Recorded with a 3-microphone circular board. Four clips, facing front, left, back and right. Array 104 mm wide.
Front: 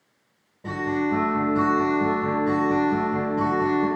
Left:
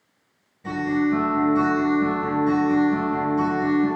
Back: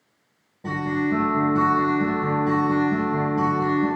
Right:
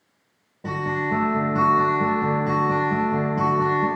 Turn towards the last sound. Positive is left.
turn(degrees=-90)